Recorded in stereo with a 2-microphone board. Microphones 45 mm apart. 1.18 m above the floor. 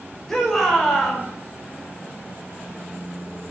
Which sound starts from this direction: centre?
A shout, at 0.3 s.